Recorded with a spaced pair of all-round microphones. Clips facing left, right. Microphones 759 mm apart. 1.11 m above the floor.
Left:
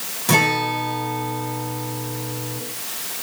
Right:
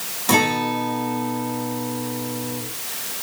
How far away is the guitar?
About 4.5 m.